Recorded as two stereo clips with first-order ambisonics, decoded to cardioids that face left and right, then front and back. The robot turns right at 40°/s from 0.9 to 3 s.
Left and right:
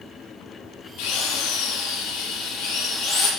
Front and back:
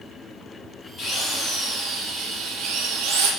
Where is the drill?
70° left, 5.5 m; by 3.3 s 150° left, 5.5 m.